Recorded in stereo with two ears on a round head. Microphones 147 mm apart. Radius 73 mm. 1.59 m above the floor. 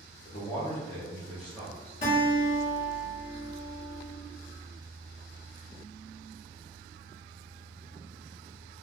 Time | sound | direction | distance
0.2 | a man speaking | 40° left (ahead or behind) | 0.8 m
2.0 | a guitar | 40° left (ahead or behind) | 1.4 m